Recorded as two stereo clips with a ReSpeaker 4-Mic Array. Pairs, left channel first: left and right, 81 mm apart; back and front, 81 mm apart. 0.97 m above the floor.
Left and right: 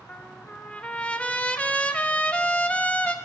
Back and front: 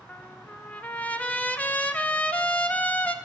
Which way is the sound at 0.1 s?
135° left.